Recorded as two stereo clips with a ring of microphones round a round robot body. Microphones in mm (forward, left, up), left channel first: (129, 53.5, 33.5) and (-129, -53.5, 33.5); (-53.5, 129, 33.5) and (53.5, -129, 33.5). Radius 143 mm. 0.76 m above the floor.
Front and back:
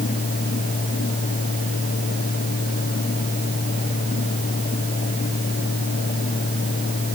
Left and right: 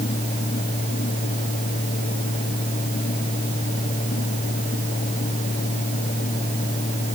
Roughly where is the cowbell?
I don't hear a cowbell.